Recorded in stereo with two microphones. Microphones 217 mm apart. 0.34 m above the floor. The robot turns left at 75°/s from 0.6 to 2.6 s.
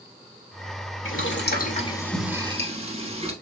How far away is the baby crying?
I don't hear a baby crying.